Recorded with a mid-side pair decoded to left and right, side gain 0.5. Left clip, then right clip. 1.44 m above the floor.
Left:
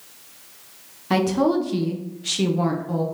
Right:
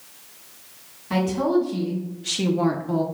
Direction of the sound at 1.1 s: 55° left.